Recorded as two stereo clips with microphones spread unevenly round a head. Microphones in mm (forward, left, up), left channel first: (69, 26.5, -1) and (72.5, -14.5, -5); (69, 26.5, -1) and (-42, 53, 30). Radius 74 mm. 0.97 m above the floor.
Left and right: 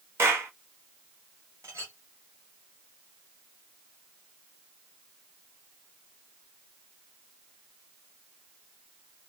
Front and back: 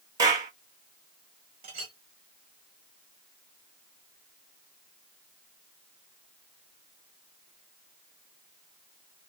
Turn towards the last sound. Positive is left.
turn(degrees=-140)